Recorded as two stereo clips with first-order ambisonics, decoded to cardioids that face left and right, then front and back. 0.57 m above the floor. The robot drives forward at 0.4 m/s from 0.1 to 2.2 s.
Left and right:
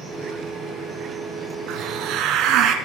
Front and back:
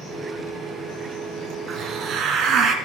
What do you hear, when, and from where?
1.7 s a hiss: 125° right, 1.8 m; by 2.8 s 130° right, 1.9 m